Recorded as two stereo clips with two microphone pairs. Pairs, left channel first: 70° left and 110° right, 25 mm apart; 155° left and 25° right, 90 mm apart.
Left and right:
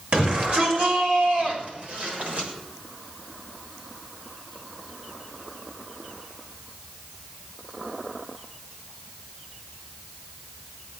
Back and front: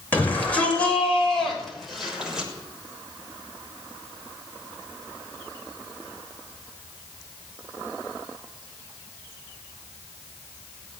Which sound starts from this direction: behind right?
A shout, at 0.1 s.